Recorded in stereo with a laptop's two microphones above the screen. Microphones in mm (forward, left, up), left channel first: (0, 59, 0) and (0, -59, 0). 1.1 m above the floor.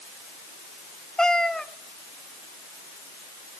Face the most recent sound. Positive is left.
turn(degrees=5)  # may be behind; listen again after turning